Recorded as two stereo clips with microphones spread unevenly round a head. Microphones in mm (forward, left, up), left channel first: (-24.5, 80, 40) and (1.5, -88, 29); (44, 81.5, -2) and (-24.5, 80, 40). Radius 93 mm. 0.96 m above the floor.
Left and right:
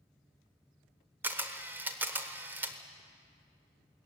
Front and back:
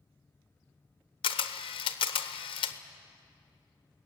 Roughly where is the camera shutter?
Ahead.